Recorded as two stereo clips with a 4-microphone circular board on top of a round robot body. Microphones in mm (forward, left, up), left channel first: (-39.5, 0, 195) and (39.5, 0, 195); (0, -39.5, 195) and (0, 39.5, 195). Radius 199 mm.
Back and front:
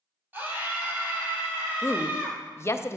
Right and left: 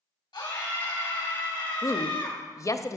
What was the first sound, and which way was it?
A scream, 65° right.